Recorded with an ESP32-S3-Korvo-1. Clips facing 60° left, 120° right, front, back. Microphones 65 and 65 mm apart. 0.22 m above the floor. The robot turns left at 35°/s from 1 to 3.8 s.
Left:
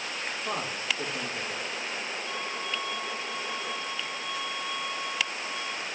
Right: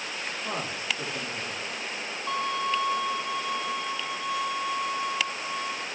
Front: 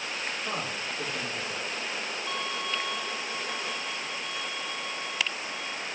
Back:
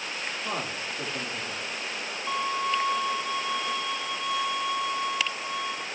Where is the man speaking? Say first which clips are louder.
Even, back 1 dB; straight behind, 6 m; by 1.7 s 160° left, 6 m.